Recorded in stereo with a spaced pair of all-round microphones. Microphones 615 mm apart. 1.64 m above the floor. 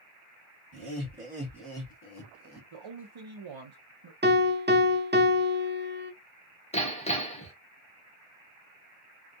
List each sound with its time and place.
0.7 s laughter: 30° right (ahead or behind), 1.4 m; by 2.6 s 45° left (ahead or behind), 1.1 m
2.7 s a man speaking: 50° right (ahead or behind), 0.6 m
4.2 s a piano: 20° right (ahead or behind), 0.5 m
6.7 s hammering: 10° left (ahead or behind), 0.6 m